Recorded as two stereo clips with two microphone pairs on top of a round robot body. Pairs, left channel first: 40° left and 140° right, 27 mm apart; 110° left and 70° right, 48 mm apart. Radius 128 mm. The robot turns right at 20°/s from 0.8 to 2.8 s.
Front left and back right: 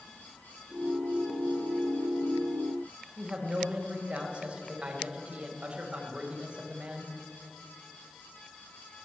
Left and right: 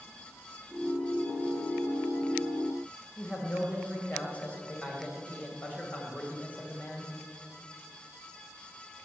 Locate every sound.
3.2 s a woman speaking: 170° left, 2.5 m